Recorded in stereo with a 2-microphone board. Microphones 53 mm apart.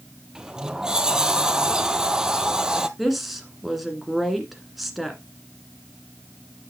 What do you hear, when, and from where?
0.3 s a sliding door: 15° right (ahead or behind), 0.6 m
3.0 s a woman speaking: centre (ahead or behind), 1.9 m